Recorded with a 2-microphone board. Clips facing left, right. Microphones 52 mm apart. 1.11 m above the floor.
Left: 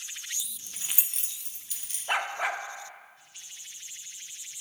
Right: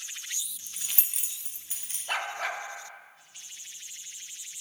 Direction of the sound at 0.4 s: 80° left.